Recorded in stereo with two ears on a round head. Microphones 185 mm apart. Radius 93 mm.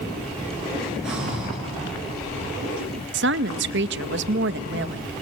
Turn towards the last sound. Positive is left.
turn(degrees=-60)  # may be behind; listen again after turning